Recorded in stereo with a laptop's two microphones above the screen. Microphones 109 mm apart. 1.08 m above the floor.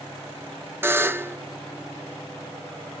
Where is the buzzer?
20° right (ahead or behind), 0.6 m.